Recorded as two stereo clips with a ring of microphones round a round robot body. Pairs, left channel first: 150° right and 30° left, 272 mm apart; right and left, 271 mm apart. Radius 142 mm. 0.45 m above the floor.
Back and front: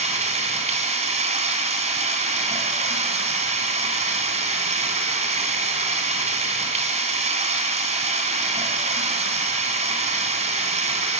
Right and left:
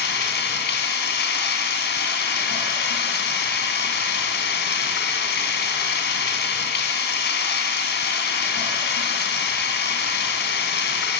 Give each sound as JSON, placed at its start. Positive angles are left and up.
{"t": 0.0, "sound": "running water", "azimuth_deg": -35, "distance_m": 3.0}